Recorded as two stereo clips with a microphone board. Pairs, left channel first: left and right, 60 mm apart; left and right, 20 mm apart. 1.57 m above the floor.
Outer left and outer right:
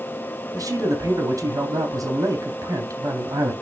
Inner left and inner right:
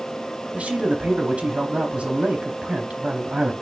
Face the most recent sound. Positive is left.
turn(degrees=-70)  # may be behind; listen again after turning